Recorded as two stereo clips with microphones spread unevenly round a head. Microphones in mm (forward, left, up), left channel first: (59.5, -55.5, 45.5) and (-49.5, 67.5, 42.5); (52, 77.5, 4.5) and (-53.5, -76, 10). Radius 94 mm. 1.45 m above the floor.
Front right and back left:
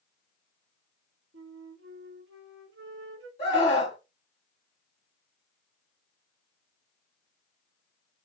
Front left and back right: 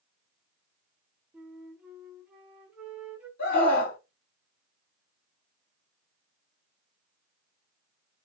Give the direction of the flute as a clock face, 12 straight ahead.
7 o'clock.